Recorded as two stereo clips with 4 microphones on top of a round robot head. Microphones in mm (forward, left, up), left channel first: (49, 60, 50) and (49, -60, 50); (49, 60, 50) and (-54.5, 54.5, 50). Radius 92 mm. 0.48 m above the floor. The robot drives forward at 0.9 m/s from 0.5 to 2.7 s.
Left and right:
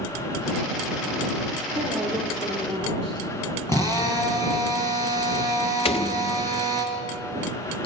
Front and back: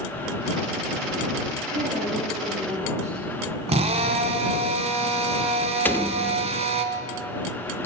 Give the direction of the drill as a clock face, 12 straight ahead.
7 o'clock.